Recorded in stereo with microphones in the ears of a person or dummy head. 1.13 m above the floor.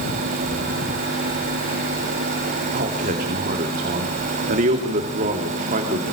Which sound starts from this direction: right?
A man speaking, at 2.7 s.